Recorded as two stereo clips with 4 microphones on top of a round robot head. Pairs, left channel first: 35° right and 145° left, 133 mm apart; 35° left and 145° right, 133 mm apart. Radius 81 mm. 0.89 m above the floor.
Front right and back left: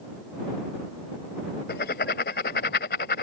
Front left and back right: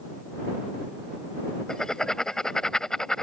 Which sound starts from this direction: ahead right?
Writing, at 1.7 s.